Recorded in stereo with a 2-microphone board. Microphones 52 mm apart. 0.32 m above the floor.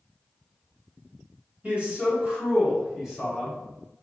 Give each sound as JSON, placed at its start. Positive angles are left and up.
{"t": 1.6, "sound": "a man speaking", "side_deg": -30, "distance_m": 1.8}